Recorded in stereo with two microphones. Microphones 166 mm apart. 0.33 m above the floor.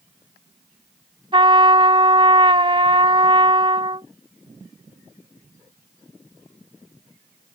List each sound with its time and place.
1.3 s a trumpet: 30° right (ahead or behind)